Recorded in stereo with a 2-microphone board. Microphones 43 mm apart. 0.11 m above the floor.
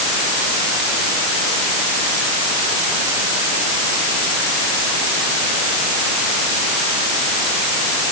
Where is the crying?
I don't hear crying.